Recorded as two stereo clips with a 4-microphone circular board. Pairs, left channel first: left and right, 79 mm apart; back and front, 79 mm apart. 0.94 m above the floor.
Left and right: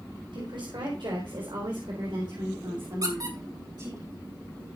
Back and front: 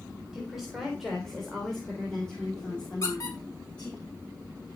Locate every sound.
0.3 s a woman speaking: 85° right, 3.5 m; by 4.0 s 110° right, 4.5 m
3.0 s a squeak: 130° right, 5 m